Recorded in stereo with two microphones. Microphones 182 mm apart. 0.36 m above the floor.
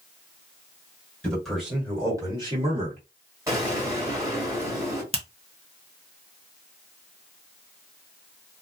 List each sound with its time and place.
1.2 s a man speaking: 5° left (ahead or behind), 1.7 m; by 3.0 s 40° right (ahead or behind), 1.7 m
3.5 s an explosion: 15° right (ahead or behind), 1.6 m
5.1 s a finger snap: 30° right (ahead or behind), 0.7 m